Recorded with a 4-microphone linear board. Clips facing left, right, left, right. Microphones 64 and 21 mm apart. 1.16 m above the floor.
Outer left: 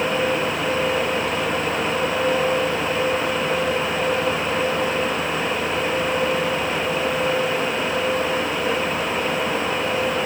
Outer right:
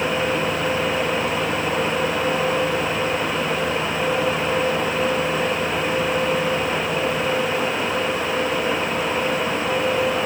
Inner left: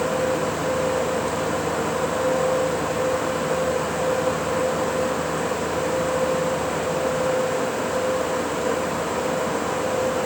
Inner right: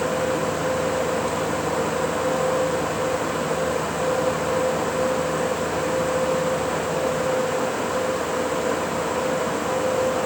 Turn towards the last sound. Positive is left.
No sound to turn to.